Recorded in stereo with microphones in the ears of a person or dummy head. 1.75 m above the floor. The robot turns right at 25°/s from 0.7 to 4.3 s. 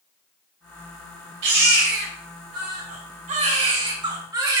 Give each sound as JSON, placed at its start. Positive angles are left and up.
{"t": 1.4, "sound": "a baby crying", "azimuth_deg": -95, "distance_m": 2.5}